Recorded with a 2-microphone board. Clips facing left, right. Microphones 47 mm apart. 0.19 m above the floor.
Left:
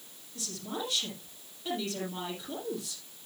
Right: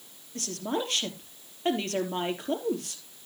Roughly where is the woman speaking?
Right.